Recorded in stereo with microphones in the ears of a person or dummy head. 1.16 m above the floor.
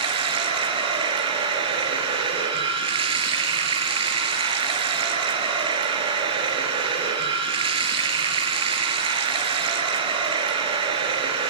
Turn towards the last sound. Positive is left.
turn(degrees=-40)  # may be behind; listen again after turning